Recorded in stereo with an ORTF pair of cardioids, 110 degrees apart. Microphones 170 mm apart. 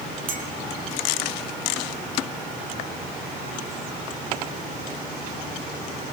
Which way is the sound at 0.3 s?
55° right.